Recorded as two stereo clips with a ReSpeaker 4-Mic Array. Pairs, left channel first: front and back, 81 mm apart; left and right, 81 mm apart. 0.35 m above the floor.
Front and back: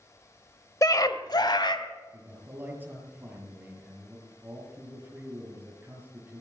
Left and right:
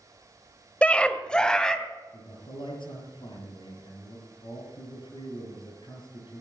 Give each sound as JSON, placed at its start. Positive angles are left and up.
{"t": 0.8, "sound": "a scream", "azimuth_deg": 20, "distance_m": 1.1}
{"t": 2.1, "sound": "a man speaking", "azimuth_deg": 110, "distance_m": 7.0}